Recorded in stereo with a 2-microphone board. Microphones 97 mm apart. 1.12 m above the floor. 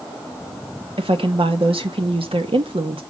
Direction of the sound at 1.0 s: 70° right (ahead or behind).